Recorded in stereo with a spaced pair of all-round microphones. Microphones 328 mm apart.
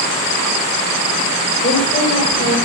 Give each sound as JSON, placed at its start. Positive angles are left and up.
{"t": 1.6, "sound": "a woman speaking", "side_deg": 20, "distance_m": 3.5}